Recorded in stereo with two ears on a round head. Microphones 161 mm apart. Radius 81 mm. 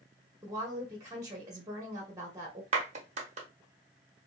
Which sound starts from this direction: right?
A clap, at 2.7 s.